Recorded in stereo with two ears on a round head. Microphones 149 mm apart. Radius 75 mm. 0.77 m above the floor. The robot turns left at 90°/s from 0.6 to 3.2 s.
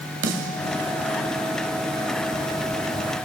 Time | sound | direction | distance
0.2 | a snare drum | 80° right | 1.7 m